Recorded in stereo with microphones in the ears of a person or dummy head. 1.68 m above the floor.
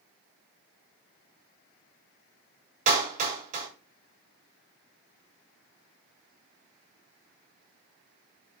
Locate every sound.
2.9 s a clap: 45° right (ahead or behind), 4 m